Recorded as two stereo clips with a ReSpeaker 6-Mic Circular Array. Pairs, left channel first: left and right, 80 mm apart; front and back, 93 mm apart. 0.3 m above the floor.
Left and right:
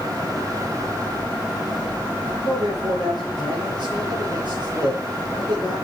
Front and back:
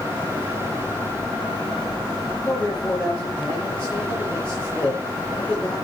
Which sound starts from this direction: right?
A man speaking, at 2.4 s.